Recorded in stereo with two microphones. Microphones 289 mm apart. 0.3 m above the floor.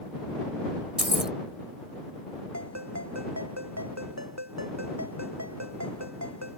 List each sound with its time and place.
1.0 s keys jangling: centre (ahead or behind)
2.5 s a ringtone: 65° right (ahead or behind)